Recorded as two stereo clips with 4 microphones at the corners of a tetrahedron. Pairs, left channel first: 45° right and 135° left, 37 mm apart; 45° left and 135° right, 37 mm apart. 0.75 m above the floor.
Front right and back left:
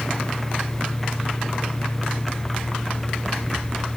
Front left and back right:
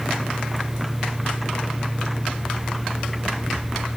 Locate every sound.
Only background noise.